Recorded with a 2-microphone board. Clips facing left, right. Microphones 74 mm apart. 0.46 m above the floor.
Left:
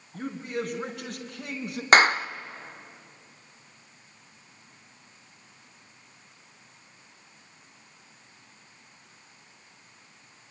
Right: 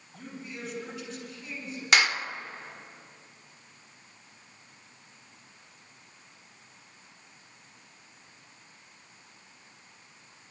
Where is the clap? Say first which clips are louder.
Left 6 dB; 40° left (ahead or behind), 0.8 m.